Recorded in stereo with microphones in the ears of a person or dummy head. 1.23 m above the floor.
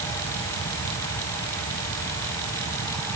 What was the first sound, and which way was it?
Only background noise.